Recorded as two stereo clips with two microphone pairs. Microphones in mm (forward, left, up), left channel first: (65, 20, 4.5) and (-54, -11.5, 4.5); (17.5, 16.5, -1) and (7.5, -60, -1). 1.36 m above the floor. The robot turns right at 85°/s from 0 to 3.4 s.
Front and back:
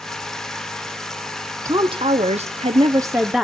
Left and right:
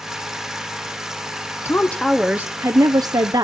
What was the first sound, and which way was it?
A woman speaking, 135° left.